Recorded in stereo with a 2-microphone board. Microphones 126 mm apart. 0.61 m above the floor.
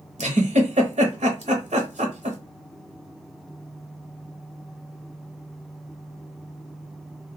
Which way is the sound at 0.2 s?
65° right (ahead or behind).